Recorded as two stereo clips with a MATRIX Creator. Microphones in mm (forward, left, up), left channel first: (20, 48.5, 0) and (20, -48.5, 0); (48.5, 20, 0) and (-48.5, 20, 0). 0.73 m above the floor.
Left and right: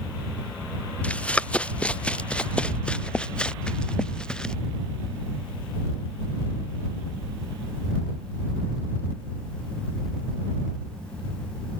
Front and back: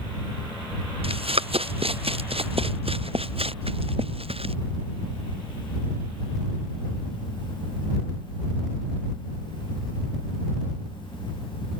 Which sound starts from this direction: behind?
Running footsteps, at 1.0 s.